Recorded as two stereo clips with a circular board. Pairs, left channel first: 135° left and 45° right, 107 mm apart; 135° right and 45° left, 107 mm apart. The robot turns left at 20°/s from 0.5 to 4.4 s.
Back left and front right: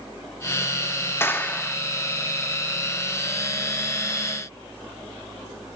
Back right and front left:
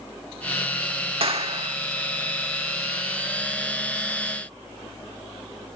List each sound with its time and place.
1.2 s a clap: 70° left, 2.0 m; by 1.8 s 60° left, 2.0 m